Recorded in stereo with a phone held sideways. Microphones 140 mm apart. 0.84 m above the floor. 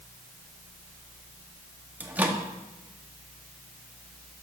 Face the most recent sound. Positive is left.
turn(degrees=-10)  # may be behind; listen again after turning